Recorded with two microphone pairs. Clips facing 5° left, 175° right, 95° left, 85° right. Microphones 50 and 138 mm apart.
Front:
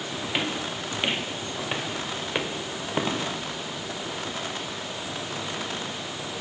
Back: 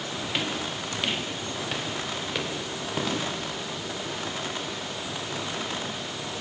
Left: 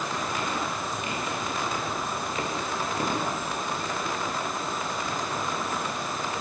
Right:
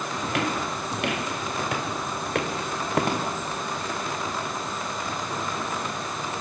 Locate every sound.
0.2 s footsteps: 65° right, 1.4 m; by 3.3 s 60° right, 3.5 m